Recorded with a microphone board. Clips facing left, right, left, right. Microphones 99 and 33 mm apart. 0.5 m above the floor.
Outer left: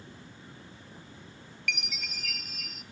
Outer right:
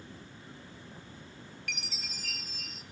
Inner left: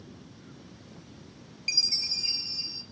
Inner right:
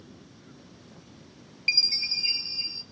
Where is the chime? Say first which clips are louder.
Outer left 8 dB, inner right 4 dB; 35° right (ahead or behind), 0.5 m.